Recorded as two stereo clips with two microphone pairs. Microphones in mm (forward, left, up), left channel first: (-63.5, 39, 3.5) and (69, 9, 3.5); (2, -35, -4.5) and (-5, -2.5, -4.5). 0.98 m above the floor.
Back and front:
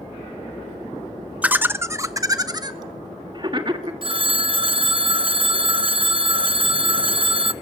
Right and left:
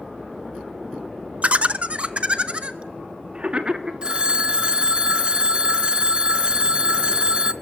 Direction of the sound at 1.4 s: 65° left.